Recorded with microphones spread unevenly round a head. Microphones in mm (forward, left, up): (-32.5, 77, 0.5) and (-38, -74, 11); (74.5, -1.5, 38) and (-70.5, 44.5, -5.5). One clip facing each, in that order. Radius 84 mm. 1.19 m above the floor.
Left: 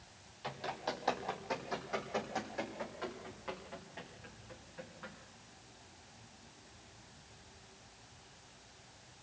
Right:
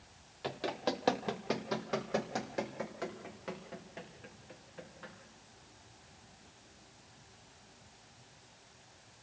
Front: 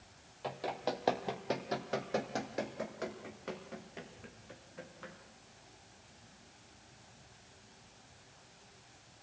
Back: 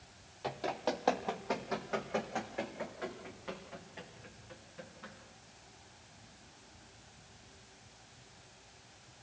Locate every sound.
0.4 s running footsteps: 100° right, 2.5 m; by 5.1 s 35° right, 6 m